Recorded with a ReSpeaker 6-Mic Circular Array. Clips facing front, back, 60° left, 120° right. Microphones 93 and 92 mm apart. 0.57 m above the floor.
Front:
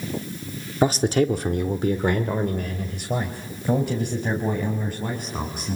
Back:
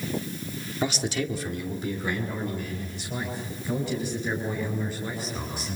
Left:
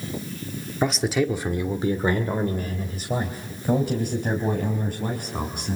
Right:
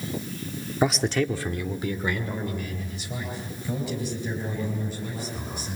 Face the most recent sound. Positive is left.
turn(degrees=35)